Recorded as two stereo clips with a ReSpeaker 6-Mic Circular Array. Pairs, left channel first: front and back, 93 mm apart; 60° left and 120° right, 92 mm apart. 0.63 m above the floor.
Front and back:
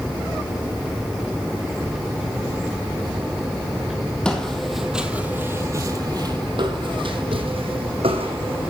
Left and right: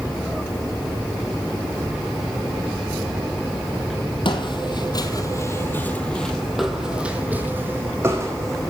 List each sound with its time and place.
4.2 s footsteps: 80° left, 1.7 m; by 8.7 s 175° right, 2.5 m